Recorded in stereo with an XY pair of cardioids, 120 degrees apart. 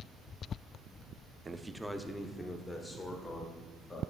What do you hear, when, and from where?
1.4 s a man speaking: 20° right, 0.5 m; by 4.0 s 30° left, 2.5 m